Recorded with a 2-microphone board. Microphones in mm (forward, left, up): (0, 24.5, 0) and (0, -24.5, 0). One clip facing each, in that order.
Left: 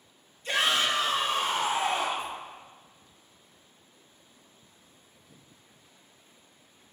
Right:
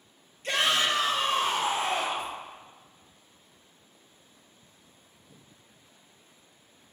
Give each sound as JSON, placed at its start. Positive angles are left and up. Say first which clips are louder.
{"t": 0.4, "sound": "a shout", "louder": "even", "side_deg": -65, "distance_m": 3.0}